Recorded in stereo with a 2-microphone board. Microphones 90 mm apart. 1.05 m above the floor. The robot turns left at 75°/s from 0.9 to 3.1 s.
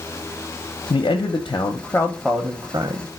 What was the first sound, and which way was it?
A man speaking, 100° left.